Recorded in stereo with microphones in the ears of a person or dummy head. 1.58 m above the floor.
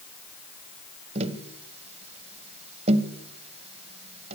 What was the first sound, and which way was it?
Tapping, 35° right (ahead or behind).